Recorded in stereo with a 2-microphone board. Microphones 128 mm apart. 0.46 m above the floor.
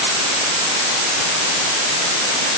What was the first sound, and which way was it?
Only background noise.